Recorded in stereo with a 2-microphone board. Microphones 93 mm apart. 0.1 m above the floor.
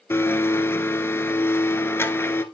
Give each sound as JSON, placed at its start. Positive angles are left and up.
{"t": 0.1, "sound": "a blender", "side_deg": 25, "distance_m": 0.5}